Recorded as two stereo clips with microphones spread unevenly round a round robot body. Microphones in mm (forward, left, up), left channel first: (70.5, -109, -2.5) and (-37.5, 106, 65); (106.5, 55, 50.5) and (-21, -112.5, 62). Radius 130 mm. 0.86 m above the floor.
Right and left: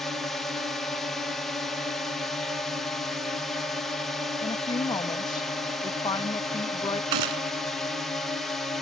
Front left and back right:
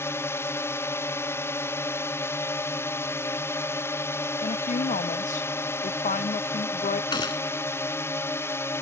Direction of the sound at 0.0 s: 5° right.